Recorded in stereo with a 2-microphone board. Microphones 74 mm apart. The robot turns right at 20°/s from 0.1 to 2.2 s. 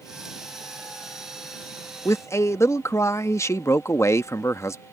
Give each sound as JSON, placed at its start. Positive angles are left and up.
{"t": 2.0, "sound": "a man speaking", "side_deg": 35}